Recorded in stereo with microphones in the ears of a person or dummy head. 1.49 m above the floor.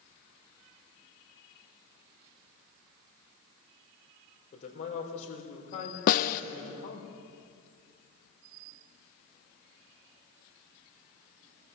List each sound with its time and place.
4.5 s a man speaking: 40° left (ahead or behind), 4 m
6.1 s a snare drum: 45° left (ahead or behind), 0.8 m